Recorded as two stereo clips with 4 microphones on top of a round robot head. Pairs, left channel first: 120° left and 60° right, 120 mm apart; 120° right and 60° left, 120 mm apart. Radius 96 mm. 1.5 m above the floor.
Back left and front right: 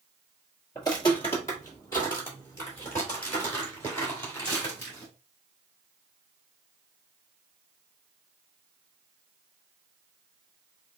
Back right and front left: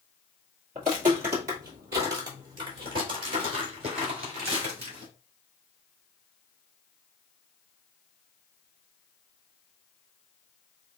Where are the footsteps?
75° left, 1.7 m; by 5.1 s 50° left, 5 m.